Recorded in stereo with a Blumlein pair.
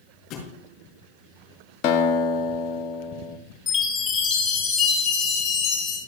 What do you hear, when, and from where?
0.3 s a thud: 35° left, 4.5 m
1.8 s a guitar: 40° left, 1.4 m
3.7 s a chime: 20° left, 3 m